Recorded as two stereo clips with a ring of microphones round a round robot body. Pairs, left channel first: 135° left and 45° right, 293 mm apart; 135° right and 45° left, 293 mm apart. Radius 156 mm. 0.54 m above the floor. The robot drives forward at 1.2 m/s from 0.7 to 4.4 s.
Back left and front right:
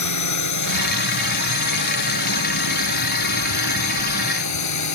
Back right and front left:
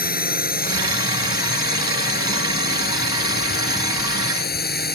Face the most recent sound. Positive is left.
turn(degrees=165)